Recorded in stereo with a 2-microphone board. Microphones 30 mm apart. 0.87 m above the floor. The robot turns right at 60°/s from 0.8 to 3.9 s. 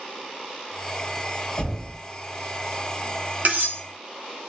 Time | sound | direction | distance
1.6 | knocking | 60° left (ahead or behind) | 1.7 m
3.5 | cutlery clinking | 55° right (ahead or behind) | 0.8 m